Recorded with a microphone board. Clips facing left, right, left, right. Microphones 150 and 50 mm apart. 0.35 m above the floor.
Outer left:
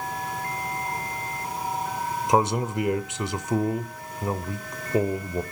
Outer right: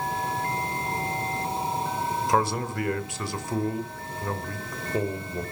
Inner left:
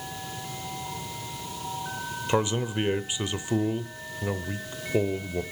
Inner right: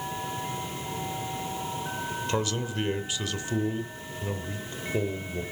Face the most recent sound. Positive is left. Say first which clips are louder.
# outer left 4 dB, inner left 6 dB
turn(degrees=20)  # may be behind; listen again after turning